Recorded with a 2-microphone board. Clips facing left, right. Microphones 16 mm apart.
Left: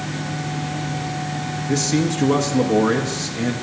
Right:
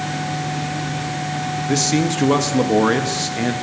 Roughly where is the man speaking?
Right.